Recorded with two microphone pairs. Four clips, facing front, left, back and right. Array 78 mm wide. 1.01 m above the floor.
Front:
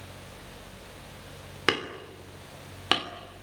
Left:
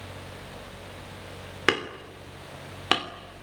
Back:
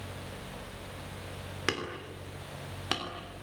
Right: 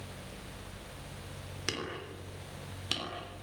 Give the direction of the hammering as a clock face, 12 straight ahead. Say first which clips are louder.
Left 12 dB, front 6 dB; 10 o'clock.